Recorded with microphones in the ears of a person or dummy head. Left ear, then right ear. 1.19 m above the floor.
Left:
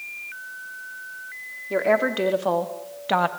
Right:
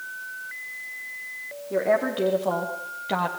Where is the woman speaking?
65° left (ahead or behind), 3.5 m; by 3.3 s 45° left (ahead or behind), 1.9 m.